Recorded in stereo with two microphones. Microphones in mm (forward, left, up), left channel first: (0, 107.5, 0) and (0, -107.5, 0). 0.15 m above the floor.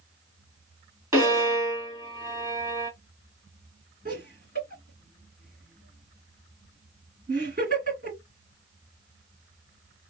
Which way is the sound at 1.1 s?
15° right (ahead or behind).